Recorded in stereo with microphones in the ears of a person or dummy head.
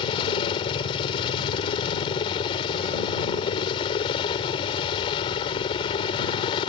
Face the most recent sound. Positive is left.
turn(degrees=25)  # may be behind; listen again after turning